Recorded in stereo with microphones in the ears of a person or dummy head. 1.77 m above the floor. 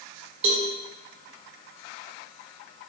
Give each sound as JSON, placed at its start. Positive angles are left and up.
{"t": 0.4, "sound": "a cowbell", "side_deg": -40, "distance_m": 0.6}